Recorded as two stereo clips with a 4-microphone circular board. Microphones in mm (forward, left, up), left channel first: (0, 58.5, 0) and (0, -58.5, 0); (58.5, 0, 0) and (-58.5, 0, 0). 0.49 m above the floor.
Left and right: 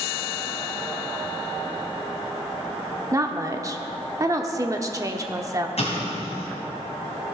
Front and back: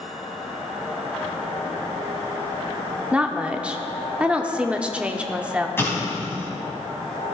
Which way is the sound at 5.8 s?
70° left.